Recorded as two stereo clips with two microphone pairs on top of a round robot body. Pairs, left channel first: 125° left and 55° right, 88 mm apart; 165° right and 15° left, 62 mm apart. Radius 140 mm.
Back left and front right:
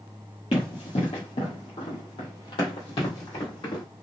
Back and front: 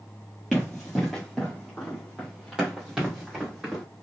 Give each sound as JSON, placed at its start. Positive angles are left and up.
{"t": 0.5, "sound": "running footsteps", "azimuth_deg": 115, "distance_m": 1.6}